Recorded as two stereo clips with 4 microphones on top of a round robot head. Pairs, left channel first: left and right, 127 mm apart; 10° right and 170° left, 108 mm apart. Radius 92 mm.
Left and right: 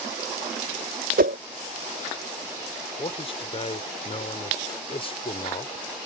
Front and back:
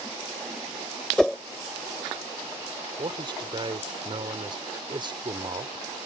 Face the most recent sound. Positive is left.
turn(degrees=130)